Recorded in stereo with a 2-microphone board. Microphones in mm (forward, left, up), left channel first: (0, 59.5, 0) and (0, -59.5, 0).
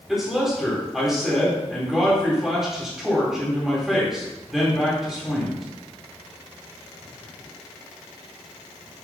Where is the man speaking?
5° right (ahead or behind), 2.5 m.